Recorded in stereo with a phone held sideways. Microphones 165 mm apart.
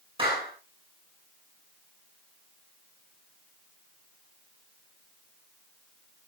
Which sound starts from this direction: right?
A clap, at 0.2 s.